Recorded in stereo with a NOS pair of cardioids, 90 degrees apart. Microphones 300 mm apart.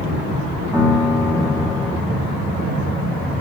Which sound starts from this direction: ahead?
A piano, at 0.7 s.